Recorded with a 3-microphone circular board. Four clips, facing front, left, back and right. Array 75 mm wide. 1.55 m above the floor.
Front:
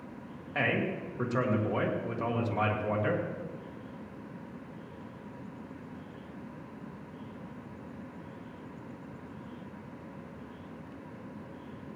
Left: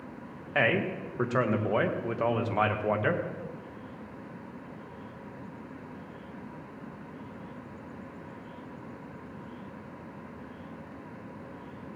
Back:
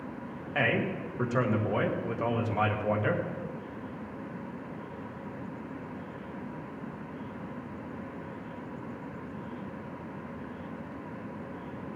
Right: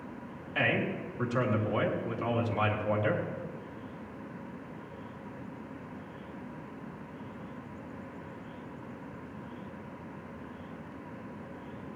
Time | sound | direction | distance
0.6 | a man speaking | 105° left | 2.0 m